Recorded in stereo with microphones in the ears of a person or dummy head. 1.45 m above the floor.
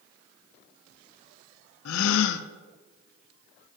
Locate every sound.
1.9 s a gasp: 70° left (ahead or behind), 0.6 m